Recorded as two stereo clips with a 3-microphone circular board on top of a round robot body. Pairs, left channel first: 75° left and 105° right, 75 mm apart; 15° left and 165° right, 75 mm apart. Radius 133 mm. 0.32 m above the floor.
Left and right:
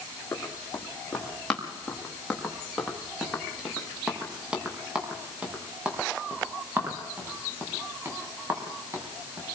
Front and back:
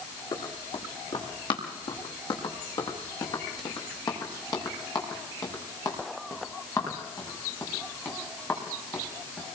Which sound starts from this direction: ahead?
Running footsteps, at 0.3 s.